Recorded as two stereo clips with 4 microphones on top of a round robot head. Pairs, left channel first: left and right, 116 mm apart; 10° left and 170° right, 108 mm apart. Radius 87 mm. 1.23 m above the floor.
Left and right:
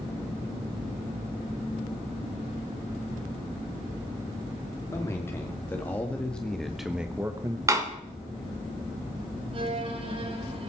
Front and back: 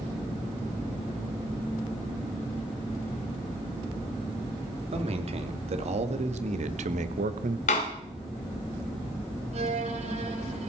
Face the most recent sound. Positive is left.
turn(degrees=-140)